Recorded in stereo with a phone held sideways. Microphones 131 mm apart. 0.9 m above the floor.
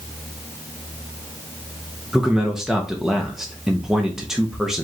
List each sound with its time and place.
2.1 s a man speaking: 5° right (ahead or behind), 0.7 m